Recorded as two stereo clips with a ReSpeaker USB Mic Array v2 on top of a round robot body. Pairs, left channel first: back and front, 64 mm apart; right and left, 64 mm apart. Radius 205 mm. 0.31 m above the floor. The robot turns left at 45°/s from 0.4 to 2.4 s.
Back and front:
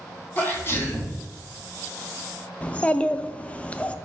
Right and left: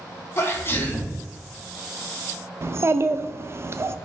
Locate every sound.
0.4 s a sneeze: 125° right, 1.5 m; by 1.2 s 160° right, 1.5 m
2.6 s a child speaking: 115° left, 0.5 m